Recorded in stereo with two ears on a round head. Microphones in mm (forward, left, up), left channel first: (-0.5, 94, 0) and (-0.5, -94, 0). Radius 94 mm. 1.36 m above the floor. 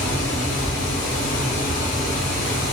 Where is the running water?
40° left (ahead or behind), 1.9 m.